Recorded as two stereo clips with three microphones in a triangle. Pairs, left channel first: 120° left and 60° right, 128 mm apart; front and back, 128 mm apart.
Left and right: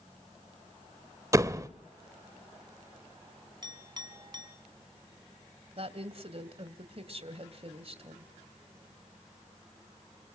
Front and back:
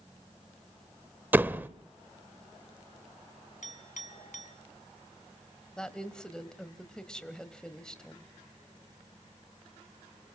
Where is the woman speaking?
85° right, 1.6 m.